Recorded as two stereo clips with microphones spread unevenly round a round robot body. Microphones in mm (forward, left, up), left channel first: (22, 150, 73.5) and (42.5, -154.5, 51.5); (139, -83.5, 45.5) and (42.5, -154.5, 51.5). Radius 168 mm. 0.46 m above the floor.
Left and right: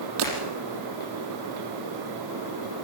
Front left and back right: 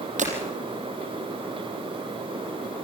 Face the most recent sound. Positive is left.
turn(degrees=-130)